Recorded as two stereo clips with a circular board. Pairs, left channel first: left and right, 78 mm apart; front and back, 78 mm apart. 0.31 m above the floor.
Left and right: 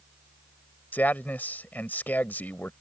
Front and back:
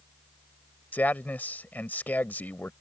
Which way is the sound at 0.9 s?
45° left.